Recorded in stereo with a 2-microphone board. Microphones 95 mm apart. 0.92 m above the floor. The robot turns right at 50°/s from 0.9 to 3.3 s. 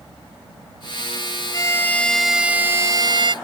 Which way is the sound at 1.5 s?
145° left.